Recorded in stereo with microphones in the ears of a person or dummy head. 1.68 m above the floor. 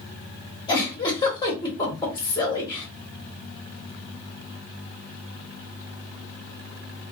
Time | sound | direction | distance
0.7 | a giggle | 25° left (ahead or behind) | 1.0 m